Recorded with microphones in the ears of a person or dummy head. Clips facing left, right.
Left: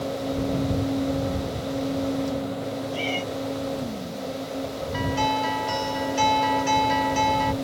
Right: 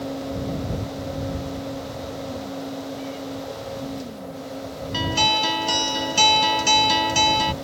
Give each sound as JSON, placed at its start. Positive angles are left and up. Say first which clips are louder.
{"t": 2.9, "sound": "a cat meowing", "louder": "left 3 dB", "side_deg": 85}
{"t": 4.9, "sound": "a guitar", "louder": "right 1 dB", "side_deg": -50}